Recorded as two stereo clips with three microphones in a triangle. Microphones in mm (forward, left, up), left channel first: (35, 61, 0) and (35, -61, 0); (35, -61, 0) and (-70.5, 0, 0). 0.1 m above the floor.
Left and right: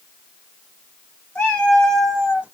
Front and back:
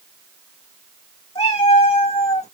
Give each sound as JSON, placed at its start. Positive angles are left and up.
{"t": 1.4, "sound": "a cat meowing", "azimuth_deg": 10, "distance_m": 1.9}